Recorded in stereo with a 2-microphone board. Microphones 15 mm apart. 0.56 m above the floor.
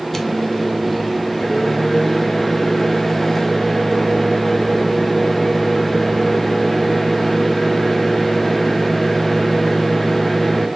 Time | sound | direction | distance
0.1 | a microwave | 20° left (ahead or behind) | 0.6 m